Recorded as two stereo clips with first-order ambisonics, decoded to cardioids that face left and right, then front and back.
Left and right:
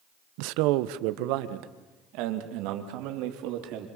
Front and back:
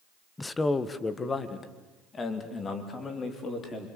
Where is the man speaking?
80° right, 0.8 m; by 3.9 s 70° right, 4 m.